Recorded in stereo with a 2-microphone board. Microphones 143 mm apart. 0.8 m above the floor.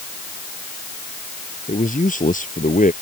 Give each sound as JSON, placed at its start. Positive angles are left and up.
{"t": 1.7, "sound": "a man speaking", "side_deg": 65}